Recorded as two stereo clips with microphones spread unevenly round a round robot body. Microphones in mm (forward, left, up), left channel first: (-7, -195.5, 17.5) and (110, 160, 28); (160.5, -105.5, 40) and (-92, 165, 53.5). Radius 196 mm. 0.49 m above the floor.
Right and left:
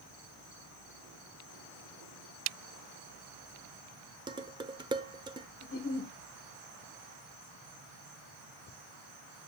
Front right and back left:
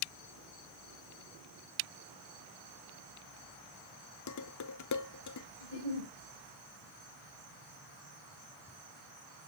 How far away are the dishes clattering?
About 0.8 m.